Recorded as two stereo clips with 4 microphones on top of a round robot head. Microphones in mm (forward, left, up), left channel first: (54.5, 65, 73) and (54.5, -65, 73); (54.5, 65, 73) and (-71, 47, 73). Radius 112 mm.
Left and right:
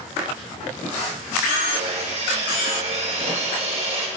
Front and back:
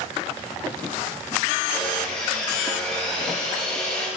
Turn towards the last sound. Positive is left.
turn(degrees=-60)